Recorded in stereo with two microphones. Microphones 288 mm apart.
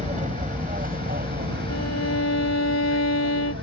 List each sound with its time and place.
0.0 s an aircraft: 25° right (ahead or behind); by 3.6 s 45° right (ahead or behind)
1.7 s a violin: 60° left (ahead or behind)